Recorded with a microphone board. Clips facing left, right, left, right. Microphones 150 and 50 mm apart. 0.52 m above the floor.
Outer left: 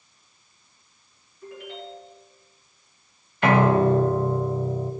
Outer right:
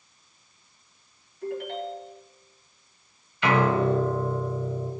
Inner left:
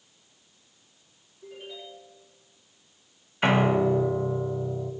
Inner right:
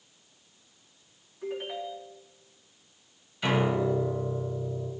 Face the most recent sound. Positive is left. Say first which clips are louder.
# outer left 4 dB, inner left 4 dB
turn(degrees=45)  # may be behind; listen again after turning